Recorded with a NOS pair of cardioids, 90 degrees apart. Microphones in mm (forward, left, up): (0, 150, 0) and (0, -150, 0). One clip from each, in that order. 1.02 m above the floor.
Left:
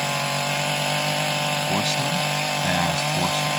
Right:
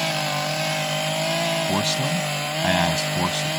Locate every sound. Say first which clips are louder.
1.7 s a man speaking: even; 25° right; by 3.5 s 15° right